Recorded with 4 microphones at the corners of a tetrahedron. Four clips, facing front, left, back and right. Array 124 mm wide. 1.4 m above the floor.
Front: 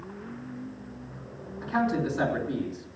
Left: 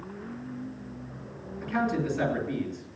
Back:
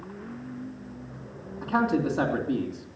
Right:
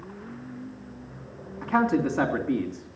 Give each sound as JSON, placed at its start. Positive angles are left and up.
{"t": 1.6, "sound": "a man speaking", "azimuth_deg": -120, "distance_m": 2.5}